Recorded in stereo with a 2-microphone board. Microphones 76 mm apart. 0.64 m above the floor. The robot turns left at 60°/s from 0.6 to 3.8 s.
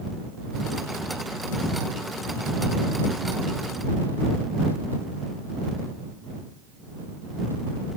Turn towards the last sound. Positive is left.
No sound to turn to.